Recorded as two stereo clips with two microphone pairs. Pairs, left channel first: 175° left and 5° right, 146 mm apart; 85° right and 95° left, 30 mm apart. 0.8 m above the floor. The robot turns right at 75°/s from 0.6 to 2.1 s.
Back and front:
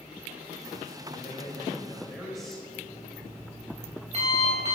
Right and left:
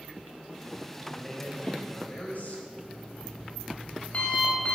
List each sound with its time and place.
1.1 s a man speaking: 170° right, 4 m; by 2.6 s 95° right, 4 m
2.7 s an alarm clock: 40° right, 3 m